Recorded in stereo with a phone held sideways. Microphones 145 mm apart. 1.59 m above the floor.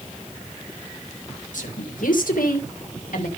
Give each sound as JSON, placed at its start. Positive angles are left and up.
{"t": 1.5, "sound": "a woman speaking", "side_deg": 70, "distance_m": 2.0}